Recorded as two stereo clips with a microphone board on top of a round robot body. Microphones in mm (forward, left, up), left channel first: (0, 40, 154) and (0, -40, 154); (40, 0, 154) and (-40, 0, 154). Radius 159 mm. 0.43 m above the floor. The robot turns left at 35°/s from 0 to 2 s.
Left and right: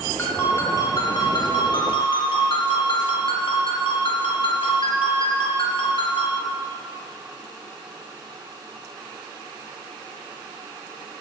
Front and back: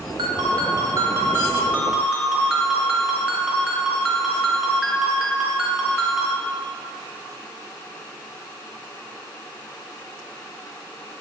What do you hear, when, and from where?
0.2 s a ringtone: 160° left, 3.5 m; by 6.4 s 95° left, 3.5 m